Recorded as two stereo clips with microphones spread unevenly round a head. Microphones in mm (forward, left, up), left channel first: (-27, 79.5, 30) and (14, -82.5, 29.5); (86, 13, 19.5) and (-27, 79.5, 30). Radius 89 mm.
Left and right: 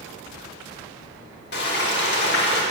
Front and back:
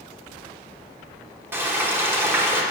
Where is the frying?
80° left, 1.0 m.